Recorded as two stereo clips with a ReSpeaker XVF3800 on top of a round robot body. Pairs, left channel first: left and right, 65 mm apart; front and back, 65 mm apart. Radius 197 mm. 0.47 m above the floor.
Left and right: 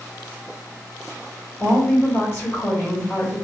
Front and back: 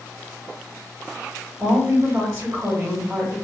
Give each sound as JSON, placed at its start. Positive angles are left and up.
{"t": 1.6, "sound": "a woman speaking", "azimuth_deg": 145, "distance_m": 1.9}